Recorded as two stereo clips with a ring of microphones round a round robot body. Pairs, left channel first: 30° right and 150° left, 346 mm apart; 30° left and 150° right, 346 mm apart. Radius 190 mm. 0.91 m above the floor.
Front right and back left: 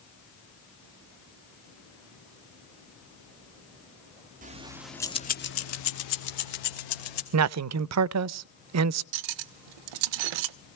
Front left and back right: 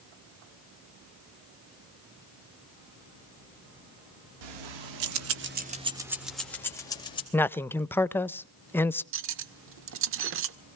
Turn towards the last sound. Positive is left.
turn(degrees=155)